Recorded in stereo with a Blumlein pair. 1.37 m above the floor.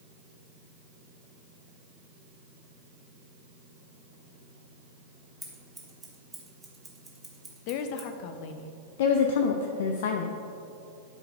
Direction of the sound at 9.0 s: 55° left.